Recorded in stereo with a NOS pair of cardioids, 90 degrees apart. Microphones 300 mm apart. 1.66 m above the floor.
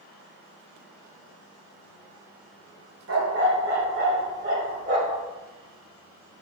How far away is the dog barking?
About 3 m.